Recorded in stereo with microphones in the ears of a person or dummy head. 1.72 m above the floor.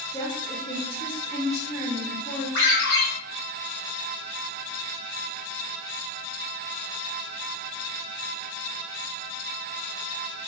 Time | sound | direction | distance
0.1 | a woman speaking | 30° left (ahead or behind) | 1.1 m
2.5 | a ringtone | 60° left (ahead or behind) | 1.3 m